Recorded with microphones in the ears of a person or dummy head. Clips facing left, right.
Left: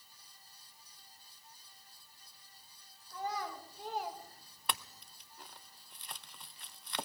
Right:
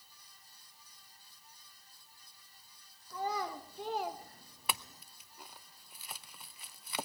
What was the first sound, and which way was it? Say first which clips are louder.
A child speaking: right 3 dB; 80° right.